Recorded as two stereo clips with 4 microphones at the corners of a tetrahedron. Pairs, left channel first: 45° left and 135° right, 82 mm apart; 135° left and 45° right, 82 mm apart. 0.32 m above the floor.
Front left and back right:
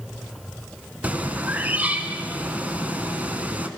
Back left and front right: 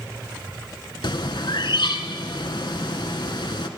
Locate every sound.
1.0 s a bird: 155° left, 0.8 m